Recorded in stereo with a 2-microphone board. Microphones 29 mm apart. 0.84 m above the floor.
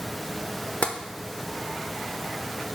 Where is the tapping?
50° left (ahead or behind), 0.7 m.